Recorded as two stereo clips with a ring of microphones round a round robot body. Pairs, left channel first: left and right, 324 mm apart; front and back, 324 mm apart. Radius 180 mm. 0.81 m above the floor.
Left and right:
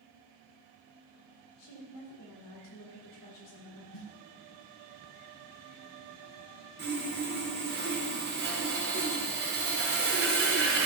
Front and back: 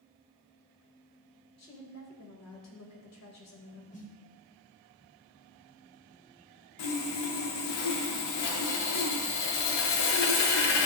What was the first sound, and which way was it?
A woman speaking, 40° left.